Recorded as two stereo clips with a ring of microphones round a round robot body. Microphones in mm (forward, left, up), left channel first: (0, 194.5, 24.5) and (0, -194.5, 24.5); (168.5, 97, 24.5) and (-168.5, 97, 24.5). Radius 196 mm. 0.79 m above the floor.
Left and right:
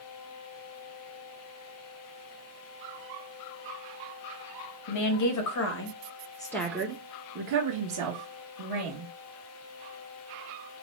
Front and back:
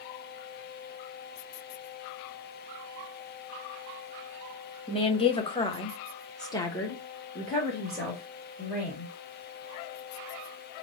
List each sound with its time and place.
4.9 s a woman speaking: 70° left, 1.2 m; by 9.1 s 95° right, 1.5 m